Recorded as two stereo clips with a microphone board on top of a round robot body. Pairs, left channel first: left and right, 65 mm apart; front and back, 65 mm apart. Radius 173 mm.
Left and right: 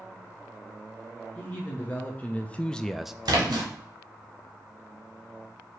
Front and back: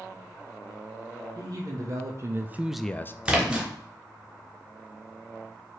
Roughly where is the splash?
Right.